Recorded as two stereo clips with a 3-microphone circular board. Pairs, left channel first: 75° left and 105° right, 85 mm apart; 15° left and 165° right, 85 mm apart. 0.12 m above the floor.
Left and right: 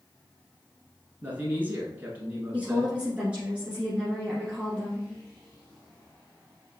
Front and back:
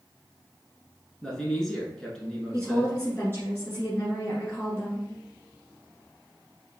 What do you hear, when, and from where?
1.2 s a man speaking: 60° right, 1.2 m
2.5 s a woman speaking: 35° right, 1.9 m